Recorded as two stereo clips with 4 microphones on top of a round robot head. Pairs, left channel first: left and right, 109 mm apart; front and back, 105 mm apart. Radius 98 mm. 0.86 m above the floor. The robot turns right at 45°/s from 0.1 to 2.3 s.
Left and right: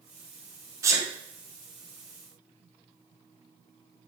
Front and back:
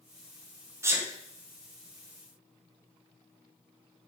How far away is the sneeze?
About 0.8 m.